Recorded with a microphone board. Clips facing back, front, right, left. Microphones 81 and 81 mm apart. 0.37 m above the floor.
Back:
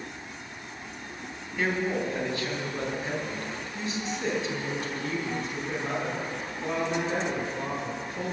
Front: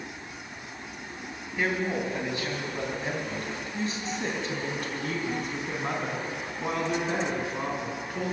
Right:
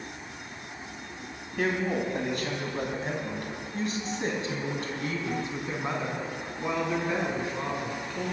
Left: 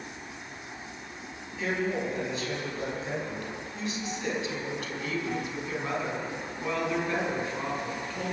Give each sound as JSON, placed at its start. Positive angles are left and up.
{"t": 1.6, "sound": "a woman speaking", "azimuth_deg": -75, "distance_m": 3.5}